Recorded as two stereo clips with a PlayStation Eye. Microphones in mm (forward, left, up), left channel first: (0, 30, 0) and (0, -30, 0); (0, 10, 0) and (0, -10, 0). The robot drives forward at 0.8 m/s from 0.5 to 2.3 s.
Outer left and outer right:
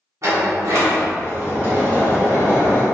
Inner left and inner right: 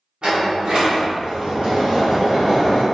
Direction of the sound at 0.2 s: 55° right (ahead or behind).